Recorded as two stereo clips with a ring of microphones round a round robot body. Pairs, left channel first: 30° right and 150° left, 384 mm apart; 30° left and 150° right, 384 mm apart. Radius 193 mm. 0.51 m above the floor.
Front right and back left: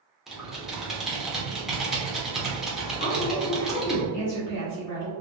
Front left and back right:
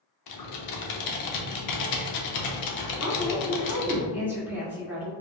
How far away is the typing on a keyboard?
About 0.7 m.